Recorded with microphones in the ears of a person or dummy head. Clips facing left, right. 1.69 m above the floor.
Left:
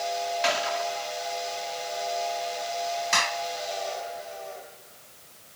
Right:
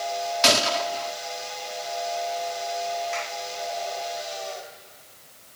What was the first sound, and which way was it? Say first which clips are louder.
A gunshot: right 7 dB; 55° right (ahead or behind).